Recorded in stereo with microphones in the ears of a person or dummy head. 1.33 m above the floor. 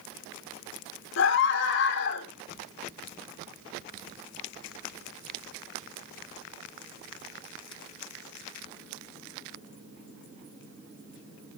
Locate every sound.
1.2 s a scream: 65° left (ahead or behind), 1.8 m